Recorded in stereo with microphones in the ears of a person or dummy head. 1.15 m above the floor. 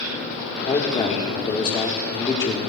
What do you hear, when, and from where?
0.7 s a man speaking: 25° left (ahead or behind), 1.6 m